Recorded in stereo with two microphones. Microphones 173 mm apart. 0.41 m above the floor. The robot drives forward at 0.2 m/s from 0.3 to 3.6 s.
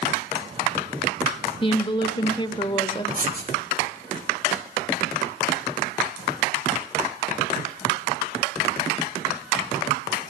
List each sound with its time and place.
1.6 s a woman speaking: 30° left (ahead or behind), 1.0 m; by 3.0 s 25° left (ahead or behind), 1.1 m
3.1 s writing: 50° right (ahead or behind), 2.5 m